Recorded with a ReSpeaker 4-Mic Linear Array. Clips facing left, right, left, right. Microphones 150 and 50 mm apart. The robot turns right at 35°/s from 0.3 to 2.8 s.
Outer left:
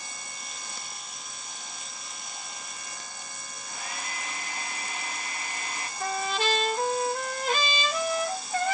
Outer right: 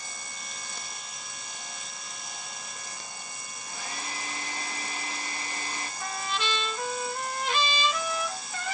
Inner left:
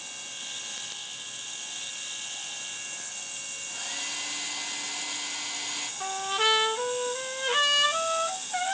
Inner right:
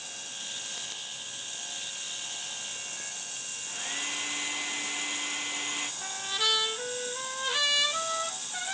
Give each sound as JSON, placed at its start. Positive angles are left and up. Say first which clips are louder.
{"t": 3.7, "sound": "a hair dryer", "louder": "even, inner right 2 dB", "side_deg": -35, "distance_m": 0.9}
{"t": 6.0, "sound": "a trumpet", "louder": "outer left 6 dB, inner left 7 dB", "side_deg": 50, "distance_m": 0.6}